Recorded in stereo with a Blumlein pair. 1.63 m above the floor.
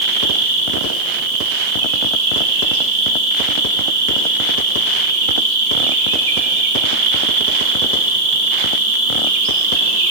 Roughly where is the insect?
Ahead right.